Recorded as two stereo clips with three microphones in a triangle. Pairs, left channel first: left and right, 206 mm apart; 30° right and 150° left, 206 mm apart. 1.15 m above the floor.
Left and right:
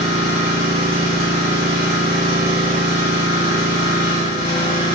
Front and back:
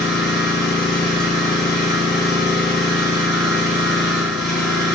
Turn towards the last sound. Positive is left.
turn(degrees=-120)